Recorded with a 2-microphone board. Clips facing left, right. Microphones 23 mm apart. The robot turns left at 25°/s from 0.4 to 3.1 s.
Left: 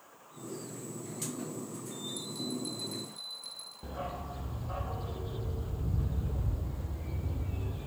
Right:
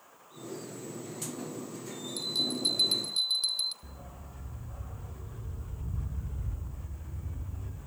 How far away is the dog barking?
About 1.1 m.